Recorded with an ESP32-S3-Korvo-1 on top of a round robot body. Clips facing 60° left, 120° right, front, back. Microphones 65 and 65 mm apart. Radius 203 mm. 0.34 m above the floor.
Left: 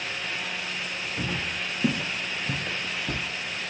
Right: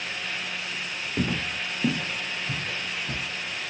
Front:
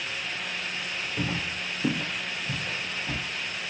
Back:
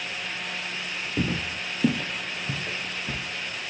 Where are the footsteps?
165° right, 0.6 m; by 3.2 s 110° left, 1.3 m.